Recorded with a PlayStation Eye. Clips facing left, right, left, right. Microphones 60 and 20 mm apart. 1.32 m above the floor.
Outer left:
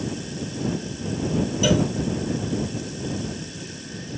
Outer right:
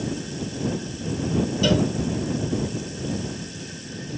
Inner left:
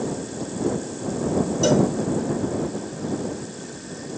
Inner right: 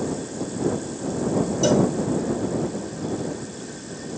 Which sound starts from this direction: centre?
A cowbell, at 1.6 s.